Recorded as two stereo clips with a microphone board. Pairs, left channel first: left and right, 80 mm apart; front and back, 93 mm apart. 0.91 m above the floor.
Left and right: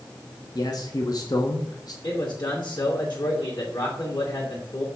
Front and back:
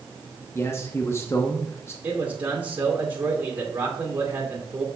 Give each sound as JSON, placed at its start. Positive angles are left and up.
{"t": 0.6, "sound": "a man speaking", "azimuth_deg": 60, "distance_m": 1.2}
{"t": 2.0, "sound": "a man speaking", "azimuth_deg": 110, "distance_m": 2.5}